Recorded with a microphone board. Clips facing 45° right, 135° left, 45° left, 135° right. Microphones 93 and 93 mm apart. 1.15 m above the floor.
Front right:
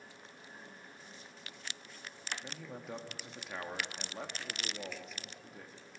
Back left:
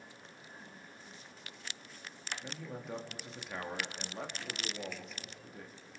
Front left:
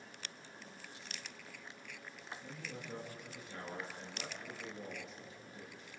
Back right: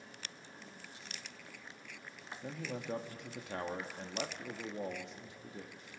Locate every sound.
2.4 s a man speaking: 135° right, 1.7 m